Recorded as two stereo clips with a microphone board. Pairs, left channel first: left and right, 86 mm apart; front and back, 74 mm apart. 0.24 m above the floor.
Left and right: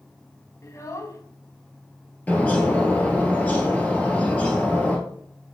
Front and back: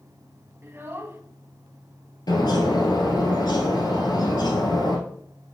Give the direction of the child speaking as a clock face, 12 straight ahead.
8 o'clock.